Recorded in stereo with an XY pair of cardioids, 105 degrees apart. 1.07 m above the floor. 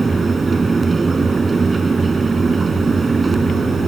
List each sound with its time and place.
0.0 s a fan: 25° right